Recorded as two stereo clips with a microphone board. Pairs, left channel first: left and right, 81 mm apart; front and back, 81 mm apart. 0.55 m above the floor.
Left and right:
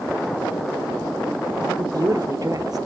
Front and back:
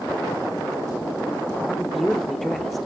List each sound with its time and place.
1.7 s a woman speaking: 90° right, 0.9 m